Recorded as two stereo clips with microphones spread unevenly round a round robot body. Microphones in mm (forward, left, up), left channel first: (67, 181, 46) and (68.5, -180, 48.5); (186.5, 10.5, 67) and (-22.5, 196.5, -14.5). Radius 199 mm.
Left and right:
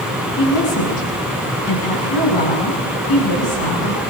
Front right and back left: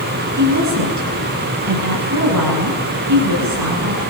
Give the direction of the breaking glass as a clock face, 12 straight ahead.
No breaking glass in this recording.